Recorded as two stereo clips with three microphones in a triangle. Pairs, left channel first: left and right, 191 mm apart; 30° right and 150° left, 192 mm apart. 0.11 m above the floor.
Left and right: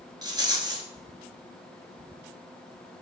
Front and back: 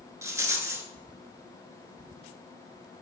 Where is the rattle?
140° right, 0.5 m.